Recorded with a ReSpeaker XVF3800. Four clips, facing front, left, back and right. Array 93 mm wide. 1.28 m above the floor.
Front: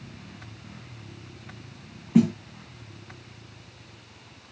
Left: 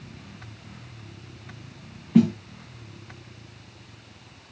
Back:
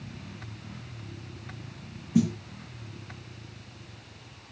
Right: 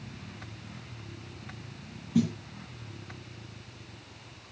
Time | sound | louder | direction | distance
2.1 | a snare drum | left 8 dB, front 5 dB | 50° left | 0.7 m